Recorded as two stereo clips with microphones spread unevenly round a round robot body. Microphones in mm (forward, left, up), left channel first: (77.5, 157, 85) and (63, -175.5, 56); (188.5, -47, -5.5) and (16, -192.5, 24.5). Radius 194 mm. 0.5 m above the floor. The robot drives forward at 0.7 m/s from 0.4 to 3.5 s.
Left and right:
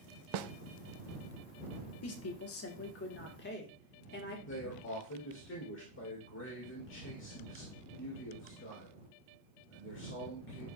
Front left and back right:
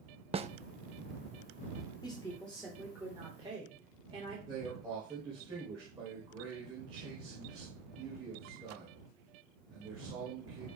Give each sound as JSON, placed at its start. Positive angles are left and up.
{"t": 0.3, "sound": "a snare drum", "azimuth_deg": -75, "distance_m": 0.6}
{"t": 2.0, "sound": "a woman speaking", "azimuth_deg": 95, "distance_m": 1.2}
{"t": 4.5, "sound": "a man speaking", "azimuth_deg": 140, "distance_m": 2.0}